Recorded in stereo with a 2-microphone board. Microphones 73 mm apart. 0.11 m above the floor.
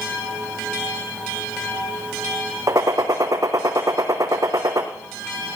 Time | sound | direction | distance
2.7 | a gunshot | 50° right (ahead or behind) | 1.9 m